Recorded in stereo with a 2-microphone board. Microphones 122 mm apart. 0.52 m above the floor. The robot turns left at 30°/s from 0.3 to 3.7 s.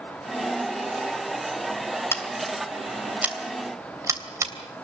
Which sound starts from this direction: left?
Scissors, at 2.1 s.